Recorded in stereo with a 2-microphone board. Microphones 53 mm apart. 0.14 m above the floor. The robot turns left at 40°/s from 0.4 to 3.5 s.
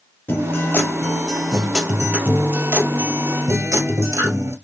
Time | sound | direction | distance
0.3 | a guitar | 50° left | 1.8 m